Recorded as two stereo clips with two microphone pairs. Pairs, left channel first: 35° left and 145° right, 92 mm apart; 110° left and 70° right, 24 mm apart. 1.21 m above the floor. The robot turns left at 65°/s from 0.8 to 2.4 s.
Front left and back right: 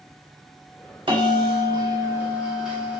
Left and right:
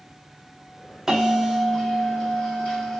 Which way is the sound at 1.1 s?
135° right.